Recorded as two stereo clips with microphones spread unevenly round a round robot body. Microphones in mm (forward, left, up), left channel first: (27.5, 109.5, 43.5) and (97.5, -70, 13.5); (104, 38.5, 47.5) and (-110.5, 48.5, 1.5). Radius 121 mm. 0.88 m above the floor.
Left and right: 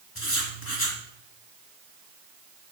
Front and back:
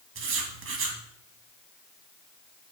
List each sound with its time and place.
0.1 s writing: 145° left, 1.8 m